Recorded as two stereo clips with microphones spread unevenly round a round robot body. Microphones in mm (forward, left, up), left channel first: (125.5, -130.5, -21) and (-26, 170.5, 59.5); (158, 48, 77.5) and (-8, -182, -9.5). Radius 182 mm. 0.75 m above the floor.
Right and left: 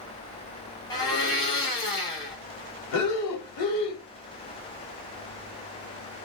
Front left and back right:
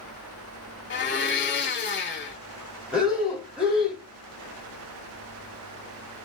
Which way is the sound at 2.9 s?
40° right.